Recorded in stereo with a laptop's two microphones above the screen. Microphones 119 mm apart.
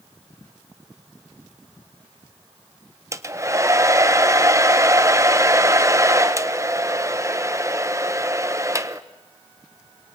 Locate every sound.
3.1 s a hair dryer: 25° right (ahead or behind), 0.8 m